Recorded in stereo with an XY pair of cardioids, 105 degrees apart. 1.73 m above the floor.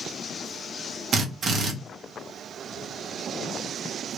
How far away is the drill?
About 0.8 m.